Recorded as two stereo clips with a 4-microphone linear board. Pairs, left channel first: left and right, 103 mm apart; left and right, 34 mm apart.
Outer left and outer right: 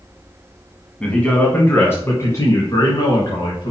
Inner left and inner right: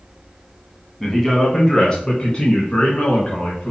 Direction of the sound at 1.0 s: 10° left (ahead or behind).